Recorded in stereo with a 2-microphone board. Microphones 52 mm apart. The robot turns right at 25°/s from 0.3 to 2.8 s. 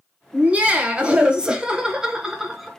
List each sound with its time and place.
0.3 s laughter: 25° right (ahead or behind), 1.0 m; by 2.7 s 5° right (ahead or behind), 1.0 m